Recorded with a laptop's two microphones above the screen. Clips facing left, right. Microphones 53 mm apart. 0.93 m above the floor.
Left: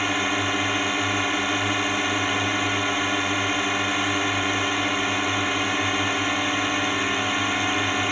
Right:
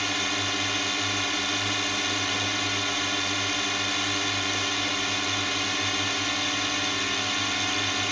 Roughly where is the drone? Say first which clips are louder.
Left 5 dB; left.